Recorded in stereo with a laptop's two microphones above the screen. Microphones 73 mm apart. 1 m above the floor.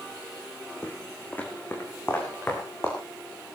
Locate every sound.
0.8 s footsteps: 15° left (ahead or behind), 2.5 m; by 3.0 s 30° left (ahead or behind), 4.5 m